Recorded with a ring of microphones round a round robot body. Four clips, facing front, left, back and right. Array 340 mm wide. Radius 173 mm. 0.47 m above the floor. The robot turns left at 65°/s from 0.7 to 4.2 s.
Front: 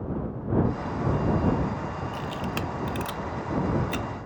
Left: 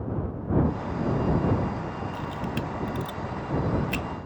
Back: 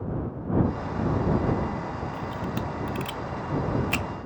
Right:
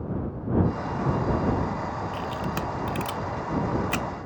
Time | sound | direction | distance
2.1 | a camera shutter | 15° right | ?